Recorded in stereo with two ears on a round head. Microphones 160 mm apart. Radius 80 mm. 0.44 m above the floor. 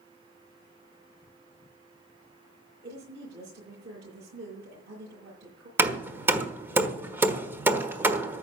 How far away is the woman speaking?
About 8.5 m.